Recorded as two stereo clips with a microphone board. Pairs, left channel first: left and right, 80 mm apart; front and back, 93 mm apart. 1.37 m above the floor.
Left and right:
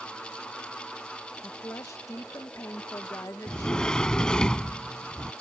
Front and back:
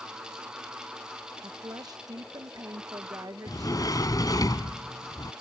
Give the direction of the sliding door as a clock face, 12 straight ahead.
11 o'clock.